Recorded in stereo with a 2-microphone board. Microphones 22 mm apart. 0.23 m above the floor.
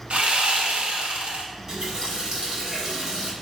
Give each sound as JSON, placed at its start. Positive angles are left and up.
{"t": 0.1, "sound": "sawing", "side_deg": -75, "distance_m": 0.5}
{"t": 1.5, "sound": "a running tap", "side_deg": -35, "distance_m": 1.3}